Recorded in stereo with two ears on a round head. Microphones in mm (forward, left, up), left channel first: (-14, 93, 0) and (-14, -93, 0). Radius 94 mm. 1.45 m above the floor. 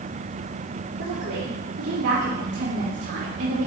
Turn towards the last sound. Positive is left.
turn(degrees=-60)  # may be behind; listen again after turning